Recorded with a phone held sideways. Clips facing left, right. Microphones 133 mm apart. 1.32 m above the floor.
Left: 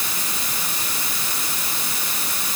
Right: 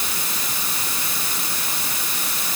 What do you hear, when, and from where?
Only background noise.